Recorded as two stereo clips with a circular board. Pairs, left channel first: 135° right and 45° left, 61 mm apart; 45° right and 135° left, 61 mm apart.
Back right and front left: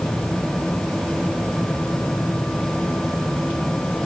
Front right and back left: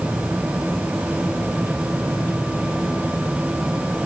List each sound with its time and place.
Only background noise.